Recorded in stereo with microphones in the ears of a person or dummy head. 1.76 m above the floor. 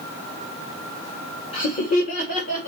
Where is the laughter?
40° left (ahead or behind), 1.4 m; by 2.7 s 55° left (ahead or behind), 2.5 m.